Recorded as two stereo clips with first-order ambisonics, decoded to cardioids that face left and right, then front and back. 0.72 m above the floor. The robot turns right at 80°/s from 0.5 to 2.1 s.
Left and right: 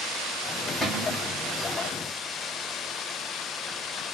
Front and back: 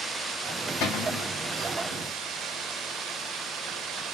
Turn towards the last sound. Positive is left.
turn(degrees=105)